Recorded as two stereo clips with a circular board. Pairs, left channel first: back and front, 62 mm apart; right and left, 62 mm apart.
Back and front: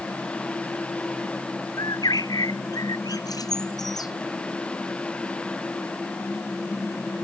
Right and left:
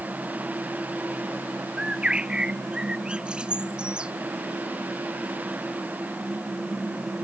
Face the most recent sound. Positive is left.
turn(degrees=165)